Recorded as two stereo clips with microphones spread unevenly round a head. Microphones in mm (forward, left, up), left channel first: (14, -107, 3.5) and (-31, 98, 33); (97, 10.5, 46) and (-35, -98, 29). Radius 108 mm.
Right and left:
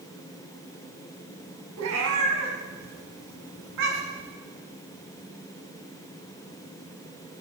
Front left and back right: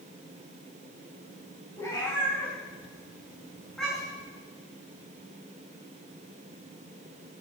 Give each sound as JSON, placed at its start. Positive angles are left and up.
{"t": 1.8, "sound": "a cat meowing", "azimuth_deg": 115, "distance_m": 3.5}